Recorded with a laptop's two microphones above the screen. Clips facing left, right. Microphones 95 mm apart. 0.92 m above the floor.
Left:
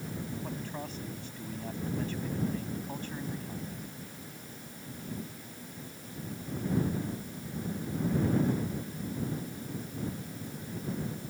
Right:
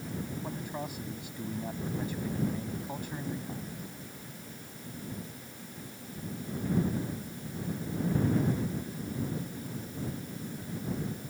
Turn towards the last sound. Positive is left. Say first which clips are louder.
# right 1 dB
turn(degrees=-10)  # may be behind; listen again after turning